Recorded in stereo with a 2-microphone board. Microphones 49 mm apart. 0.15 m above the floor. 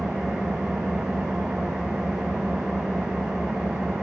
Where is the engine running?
10° right (ahead or behind), 5.5 m.